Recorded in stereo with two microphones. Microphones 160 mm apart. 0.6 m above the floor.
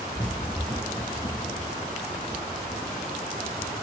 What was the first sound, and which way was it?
Running footsteps, 5° right (ahead or behind).